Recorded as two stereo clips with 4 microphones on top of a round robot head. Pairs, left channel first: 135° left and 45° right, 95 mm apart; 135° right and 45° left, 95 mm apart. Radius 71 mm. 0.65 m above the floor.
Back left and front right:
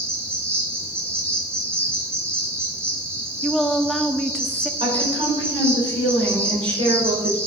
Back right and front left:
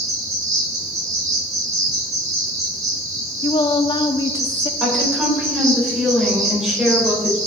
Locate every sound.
0.0 s an insect: 10° left, 2.5 m
3.4 s a woman speaking: 140° right, 0.7 m
4.8 s a woman speaking: 40° right, 3 m